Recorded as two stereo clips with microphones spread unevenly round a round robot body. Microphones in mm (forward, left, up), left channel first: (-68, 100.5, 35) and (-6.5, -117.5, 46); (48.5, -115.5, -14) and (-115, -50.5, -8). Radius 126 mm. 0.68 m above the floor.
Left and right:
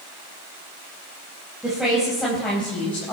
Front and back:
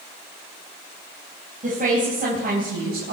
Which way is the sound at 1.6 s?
160° right.